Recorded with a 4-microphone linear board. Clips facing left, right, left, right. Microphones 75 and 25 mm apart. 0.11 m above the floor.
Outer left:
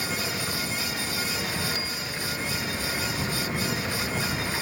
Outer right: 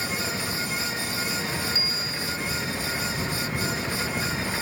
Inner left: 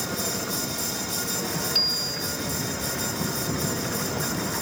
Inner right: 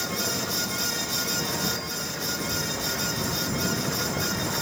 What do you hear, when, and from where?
1.8 s a bicycle bell: 50° left (ahead or behind)